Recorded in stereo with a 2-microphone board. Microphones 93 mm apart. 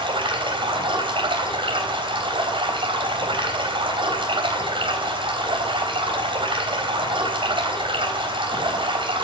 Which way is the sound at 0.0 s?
65° right (ahead or behind).